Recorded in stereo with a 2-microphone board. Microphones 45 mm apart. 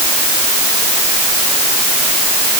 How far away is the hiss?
No hiss in this recording.